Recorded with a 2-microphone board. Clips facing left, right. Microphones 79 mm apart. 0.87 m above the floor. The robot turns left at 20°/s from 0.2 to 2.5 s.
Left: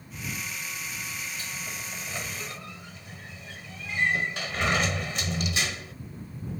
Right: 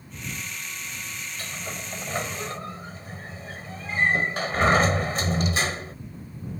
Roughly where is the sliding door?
Right.